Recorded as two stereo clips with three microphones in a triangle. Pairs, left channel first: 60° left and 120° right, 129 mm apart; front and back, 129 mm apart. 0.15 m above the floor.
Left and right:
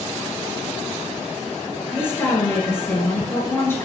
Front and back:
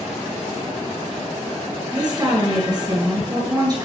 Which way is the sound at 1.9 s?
130° left.